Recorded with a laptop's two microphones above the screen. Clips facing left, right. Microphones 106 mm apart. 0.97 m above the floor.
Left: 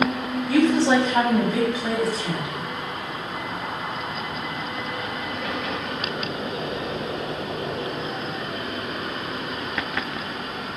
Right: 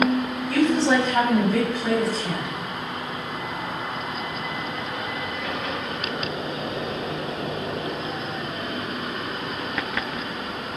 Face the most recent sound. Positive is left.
turn(degrees=5)  # may be behind; listen again after turning